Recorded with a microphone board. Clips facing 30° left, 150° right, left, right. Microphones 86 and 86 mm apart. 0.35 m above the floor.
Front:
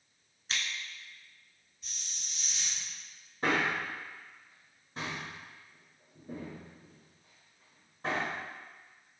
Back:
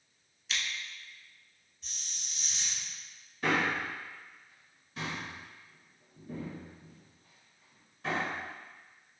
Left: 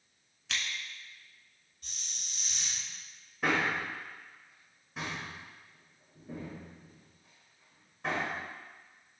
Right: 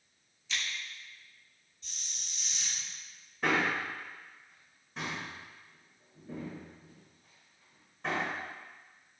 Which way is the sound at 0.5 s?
80° left.